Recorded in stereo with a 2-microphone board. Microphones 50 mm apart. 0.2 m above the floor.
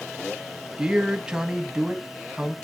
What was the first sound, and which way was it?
A man speaking, 15° right (ahead or behind).